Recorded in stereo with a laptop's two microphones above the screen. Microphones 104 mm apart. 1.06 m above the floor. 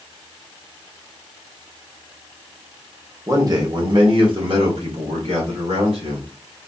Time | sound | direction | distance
3.3 | a man speaking | 30° right (ahead or behind) | 0.8 m